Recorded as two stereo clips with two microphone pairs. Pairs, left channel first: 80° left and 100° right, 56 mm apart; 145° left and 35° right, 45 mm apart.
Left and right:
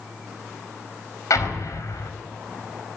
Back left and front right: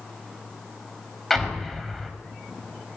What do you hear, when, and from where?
1.3 s an explosion: 60° left, 4 m